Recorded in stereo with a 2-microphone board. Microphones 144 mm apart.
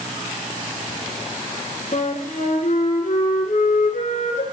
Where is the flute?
60° left (ahead or behind), 1.9 m.